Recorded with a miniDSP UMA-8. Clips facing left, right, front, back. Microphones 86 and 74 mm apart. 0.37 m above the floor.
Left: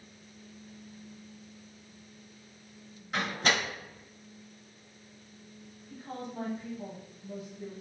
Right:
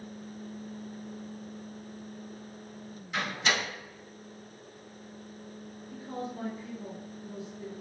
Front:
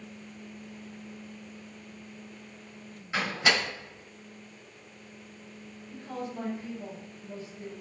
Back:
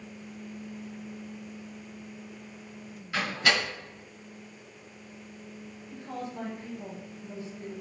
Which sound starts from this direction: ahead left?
A door slam, at 3.1 s.